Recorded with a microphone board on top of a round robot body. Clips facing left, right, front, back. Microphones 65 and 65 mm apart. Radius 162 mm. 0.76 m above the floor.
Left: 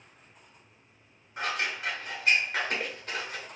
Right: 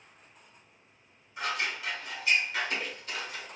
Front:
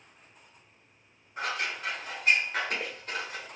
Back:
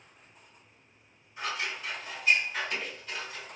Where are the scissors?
45° left, 0.8 m.